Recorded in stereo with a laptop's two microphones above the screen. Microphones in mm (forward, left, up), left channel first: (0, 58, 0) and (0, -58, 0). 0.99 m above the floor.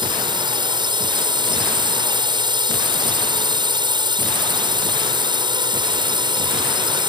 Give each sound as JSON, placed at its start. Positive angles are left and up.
{"t": 0.0, "sound": "a drone", "side_deg": -40}